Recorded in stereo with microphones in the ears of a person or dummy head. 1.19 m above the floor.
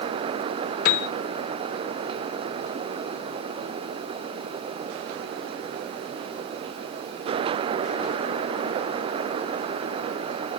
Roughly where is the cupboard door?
I don't hear a cupboard door.